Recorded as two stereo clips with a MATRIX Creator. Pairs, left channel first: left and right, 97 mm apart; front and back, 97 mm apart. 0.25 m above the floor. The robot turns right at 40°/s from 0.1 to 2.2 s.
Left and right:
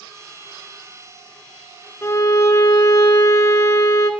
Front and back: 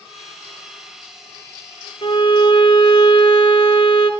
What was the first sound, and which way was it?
A violin, 25° left.